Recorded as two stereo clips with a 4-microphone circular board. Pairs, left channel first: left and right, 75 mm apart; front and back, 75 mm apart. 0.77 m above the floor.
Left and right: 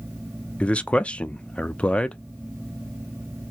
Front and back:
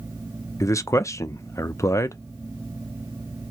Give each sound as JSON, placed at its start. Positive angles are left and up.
{"t": 0.6, "sound": "a man speaking", "azimuth_deg": 25, "distance_m": 0.6}